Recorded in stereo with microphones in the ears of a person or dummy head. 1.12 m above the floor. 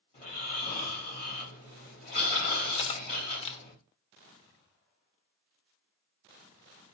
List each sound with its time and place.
0.1 s snoring: 40° left (ahead or behind), 3 m
2.7 s cutlery clinking: 30° left (ahead or behind), 0.7 m